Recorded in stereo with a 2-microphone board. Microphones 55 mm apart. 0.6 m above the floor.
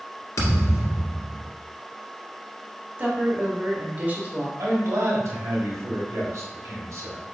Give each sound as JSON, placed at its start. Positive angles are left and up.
{"t": 0.4, "sound": "a thud", "side_deg": 75, "distance_m": 1.6}
{"t": 3.0, "sound": "a woman speaking", "side_deg": -35, "distance_m": 1.4}
{"t": 4.6, "sound": "a man speaking", "side_deg": -70, "distance_m": 2.0}